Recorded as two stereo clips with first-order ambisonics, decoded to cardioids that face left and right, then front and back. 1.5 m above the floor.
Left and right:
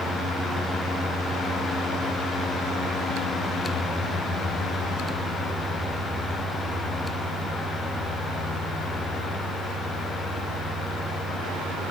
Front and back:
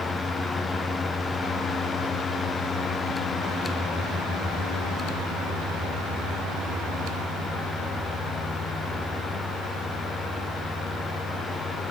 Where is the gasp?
No gasp in this recording.